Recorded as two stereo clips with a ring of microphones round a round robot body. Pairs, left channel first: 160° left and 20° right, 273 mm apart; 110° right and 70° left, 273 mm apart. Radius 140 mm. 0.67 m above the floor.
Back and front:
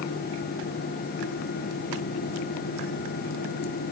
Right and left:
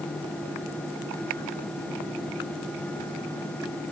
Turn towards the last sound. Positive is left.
No sound to turn to.